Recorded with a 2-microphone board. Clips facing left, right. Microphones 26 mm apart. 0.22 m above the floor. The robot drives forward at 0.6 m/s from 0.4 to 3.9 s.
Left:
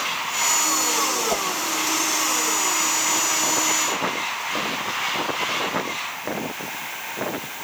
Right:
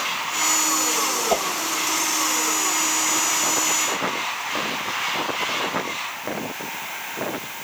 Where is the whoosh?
20° right (ahead or behind).